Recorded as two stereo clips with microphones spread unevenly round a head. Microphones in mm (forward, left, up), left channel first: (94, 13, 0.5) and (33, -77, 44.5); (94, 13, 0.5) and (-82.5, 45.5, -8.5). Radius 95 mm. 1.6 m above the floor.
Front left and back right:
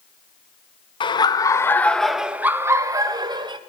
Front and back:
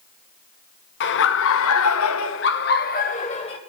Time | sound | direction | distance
1.0 | laughter | 15° left | 1.0 m